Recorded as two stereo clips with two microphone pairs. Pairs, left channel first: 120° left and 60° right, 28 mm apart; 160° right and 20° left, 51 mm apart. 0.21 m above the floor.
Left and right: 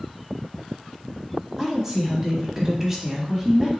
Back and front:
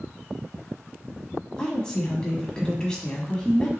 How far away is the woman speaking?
About 1.0 m.